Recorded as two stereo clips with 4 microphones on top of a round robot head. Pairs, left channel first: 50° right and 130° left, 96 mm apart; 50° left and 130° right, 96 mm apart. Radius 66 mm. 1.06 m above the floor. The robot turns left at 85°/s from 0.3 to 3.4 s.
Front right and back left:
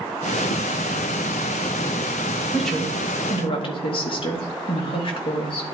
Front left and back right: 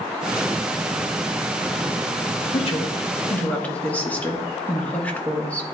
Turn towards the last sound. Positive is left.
turn(degrees=-25)